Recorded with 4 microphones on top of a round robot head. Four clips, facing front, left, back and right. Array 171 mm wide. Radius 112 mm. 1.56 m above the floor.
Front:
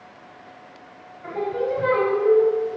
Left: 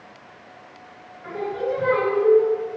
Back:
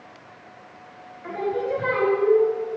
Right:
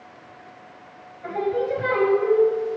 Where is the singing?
85° right, 3.5 m.